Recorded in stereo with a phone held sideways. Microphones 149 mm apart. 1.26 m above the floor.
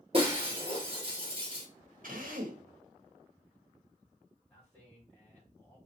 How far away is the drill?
About 1.3 m.